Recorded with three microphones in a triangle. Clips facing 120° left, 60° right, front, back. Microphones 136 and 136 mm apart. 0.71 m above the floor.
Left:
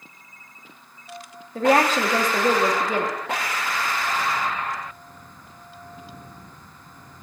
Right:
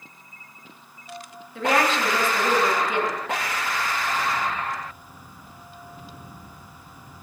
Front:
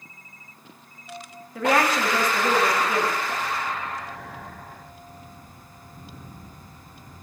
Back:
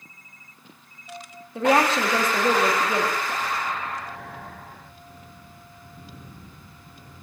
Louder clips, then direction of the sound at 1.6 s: Left 4 dB, back 2 dB; 130° left.